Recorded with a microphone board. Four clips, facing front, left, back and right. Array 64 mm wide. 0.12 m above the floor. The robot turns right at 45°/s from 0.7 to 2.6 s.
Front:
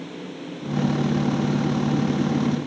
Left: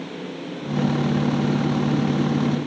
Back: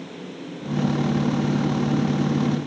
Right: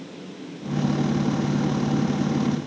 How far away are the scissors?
I don't hear scissors.